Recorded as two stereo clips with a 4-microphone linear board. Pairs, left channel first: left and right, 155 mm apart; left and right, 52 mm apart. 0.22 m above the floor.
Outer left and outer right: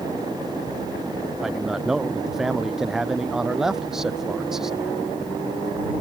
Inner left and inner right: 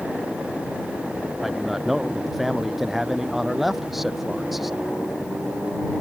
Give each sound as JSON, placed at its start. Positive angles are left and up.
{"t": 1.4, "sound": "a man speaking", "side_deg": -5}